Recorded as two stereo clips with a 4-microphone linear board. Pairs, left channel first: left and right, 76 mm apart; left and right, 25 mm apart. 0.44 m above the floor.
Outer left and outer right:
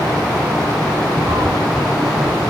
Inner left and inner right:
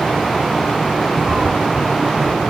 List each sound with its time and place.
1.3 s a cat meowing: 75° right (ahead or behind), 1.6 m